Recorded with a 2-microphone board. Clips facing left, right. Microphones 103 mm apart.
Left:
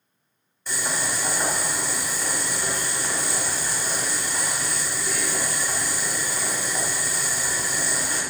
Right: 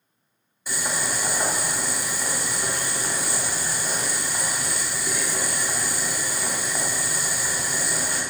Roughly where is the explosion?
No explosion in this recording.